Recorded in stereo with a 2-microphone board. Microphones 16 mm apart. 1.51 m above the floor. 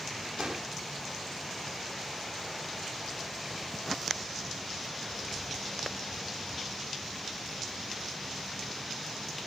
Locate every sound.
0.4 s an explosion: 65° right (ahead or behind)